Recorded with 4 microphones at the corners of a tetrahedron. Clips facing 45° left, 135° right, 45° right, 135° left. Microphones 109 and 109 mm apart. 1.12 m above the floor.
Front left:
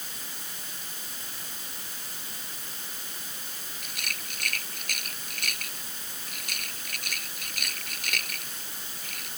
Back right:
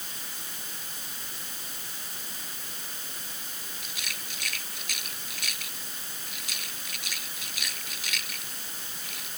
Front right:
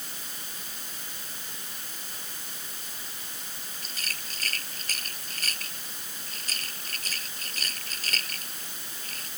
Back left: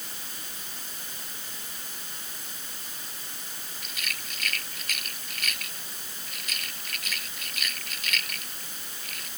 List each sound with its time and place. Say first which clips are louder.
3.8 s a rattle: front left 3 dB, back left 2 dB; 10° left